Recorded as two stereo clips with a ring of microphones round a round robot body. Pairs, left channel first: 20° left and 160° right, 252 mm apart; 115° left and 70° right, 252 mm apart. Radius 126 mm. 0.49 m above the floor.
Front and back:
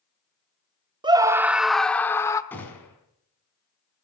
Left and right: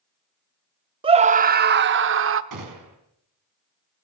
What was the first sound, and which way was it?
A scream, 110° right.